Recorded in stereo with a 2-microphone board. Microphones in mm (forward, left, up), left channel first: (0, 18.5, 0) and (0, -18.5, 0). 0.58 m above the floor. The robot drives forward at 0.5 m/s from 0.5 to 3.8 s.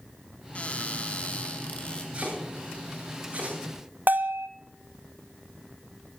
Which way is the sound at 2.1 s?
35° right (ahead or behind).